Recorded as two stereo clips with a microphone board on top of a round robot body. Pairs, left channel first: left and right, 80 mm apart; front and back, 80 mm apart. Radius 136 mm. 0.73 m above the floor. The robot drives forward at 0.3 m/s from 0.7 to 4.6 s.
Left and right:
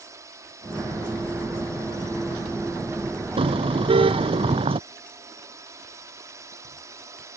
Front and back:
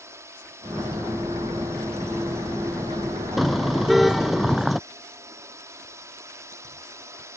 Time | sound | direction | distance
0.0 | a drone | 135° right | ?
3.4 | a car horn | 90° right | ?